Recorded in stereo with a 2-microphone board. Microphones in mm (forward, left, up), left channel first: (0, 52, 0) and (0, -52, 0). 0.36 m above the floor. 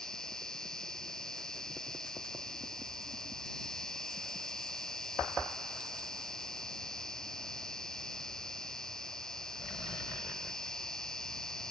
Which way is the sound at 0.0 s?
5° left (ahead or behind).